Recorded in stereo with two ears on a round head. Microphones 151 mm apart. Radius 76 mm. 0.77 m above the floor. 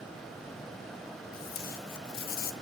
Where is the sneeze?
No sneeze in this recording.